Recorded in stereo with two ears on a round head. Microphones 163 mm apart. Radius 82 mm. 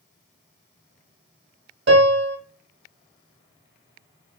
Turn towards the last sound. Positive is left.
turn(degrees=-65)  # may be behind; listen again after turning